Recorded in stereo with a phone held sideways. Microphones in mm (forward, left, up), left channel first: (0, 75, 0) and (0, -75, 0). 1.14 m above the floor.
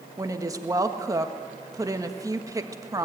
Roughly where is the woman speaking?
Right.